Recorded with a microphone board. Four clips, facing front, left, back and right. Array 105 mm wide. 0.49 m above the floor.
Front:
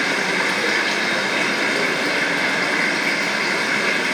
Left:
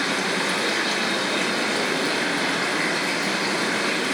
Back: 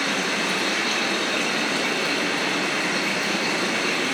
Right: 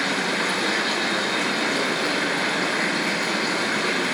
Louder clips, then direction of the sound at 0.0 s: Even, front 4 dB; 15° right.